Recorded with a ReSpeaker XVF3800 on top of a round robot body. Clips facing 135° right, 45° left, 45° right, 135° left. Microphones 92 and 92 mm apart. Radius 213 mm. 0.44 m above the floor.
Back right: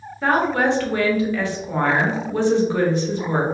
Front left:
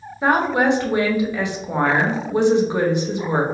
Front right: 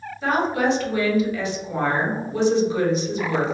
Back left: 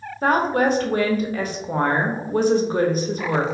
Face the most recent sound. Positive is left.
turn(degrees=110)